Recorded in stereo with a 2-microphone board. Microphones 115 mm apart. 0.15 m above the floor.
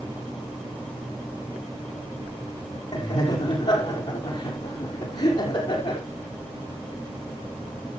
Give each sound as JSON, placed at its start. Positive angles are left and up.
{"t": 2.9, "sound": "laughter", "side_deg": 55, "distance_m": 5.0}